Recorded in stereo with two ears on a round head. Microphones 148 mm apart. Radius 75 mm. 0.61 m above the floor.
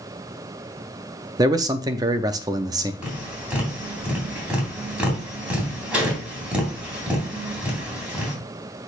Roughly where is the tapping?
Centre.